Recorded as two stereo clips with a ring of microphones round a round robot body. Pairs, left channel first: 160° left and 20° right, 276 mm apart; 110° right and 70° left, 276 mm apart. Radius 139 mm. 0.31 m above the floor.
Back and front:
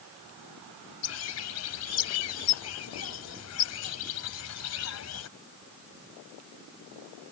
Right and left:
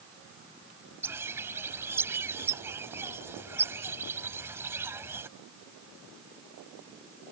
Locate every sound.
1.0 s a bird: 150° left